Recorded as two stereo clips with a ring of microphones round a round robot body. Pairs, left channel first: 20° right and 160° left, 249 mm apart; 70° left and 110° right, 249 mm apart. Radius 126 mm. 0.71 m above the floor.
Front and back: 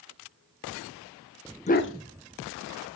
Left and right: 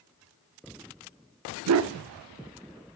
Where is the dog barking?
90° right, 0.6 m; by 2.9 s 30° right, 1.6 m.